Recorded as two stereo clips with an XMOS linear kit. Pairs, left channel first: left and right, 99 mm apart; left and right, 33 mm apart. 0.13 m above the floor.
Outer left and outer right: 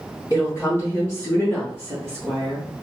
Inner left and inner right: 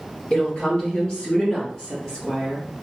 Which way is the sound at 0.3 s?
30° left (ahead or behind).